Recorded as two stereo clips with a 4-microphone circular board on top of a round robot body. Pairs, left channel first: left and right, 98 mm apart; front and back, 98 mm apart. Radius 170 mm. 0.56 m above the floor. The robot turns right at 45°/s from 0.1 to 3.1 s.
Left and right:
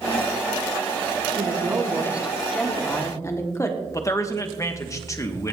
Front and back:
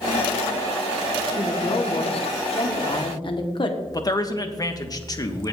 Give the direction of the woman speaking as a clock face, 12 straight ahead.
2 o'clock.